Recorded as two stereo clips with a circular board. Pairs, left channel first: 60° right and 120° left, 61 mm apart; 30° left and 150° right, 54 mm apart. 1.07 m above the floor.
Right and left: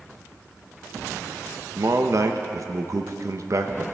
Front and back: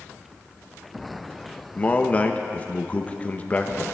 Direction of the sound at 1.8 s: 90° left.